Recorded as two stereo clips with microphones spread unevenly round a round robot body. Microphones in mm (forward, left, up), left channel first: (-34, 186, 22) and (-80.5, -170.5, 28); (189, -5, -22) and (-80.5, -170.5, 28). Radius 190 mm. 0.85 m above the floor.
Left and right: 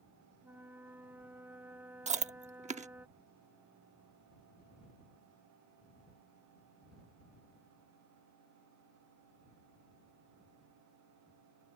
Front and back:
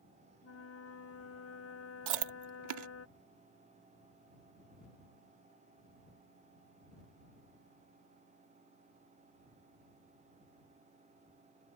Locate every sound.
0.4 s a flute: 10° right
2.1 s chewing: 170° right